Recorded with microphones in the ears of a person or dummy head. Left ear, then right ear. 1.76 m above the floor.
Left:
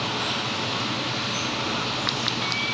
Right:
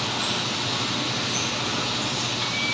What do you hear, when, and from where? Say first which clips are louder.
0.0 s running water: right 1 dB; 5° left (ahead or behind), 1.0 m